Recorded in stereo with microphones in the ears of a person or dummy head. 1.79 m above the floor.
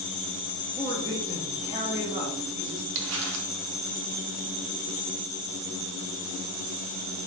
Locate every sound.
0.8 s a woman speaking: 15° right (ahead or behind), 0.6 m
3.0 s crumpling: 65° right (ahead or behind), 0.6 m